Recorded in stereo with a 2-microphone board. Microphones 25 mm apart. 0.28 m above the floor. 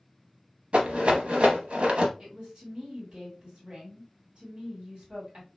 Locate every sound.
0.7 s a rattle: 55° right (ahead or behind), 0.7 m
2.2 s a woman speaking: 40° right (ahead or behind), 1.8 m